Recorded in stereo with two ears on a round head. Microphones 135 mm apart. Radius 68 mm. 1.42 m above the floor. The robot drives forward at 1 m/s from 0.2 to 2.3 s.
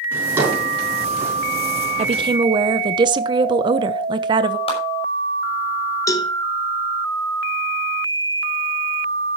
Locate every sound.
0.1 s a drawer: 15° right (ahead or behind), 6.5 m
2.0 s a woman speaking: 40° right (ahead or behind), 0.8 m; by 4.6 s 30° right (ahead or behind), 1.0 m
4.7 s a clap: 40° left (ahead or behind), 6.5 m
6.1 s a cowbell: 25° left (ahead or behind), 1.5 m